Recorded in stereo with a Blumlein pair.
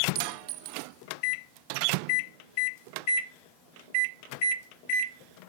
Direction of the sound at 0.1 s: 40° right.